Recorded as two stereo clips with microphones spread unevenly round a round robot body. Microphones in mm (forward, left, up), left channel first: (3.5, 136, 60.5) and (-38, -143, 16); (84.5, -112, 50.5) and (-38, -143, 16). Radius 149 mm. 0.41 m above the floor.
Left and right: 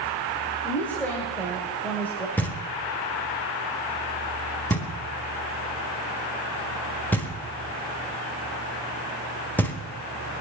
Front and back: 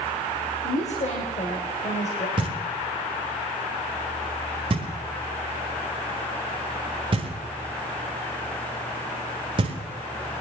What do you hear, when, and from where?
0.6 s a woman speaking: 10° right, 2.5 m
2.4 s knocking: 170° left, 1.5 m